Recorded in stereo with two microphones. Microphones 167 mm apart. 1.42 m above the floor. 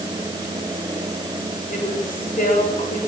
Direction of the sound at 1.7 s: 50° left (ahead or behind).